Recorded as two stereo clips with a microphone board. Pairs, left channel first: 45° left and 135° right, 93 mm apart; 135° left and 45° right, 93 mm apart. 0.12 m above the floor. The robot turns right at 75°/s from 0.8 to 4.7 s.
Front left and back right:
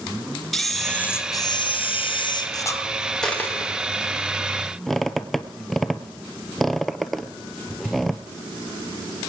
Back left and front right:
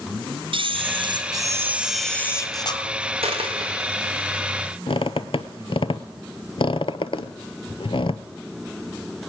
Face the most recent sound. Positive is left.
turn(degrees=135)